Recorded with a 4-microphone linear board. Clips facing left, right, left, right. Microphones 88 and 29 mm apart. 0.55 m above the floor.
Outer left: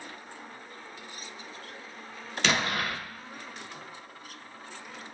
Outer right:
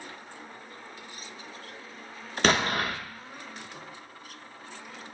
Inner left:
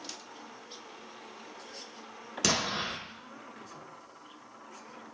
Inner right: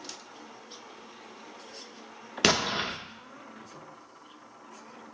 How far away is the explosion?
About 0.5 m.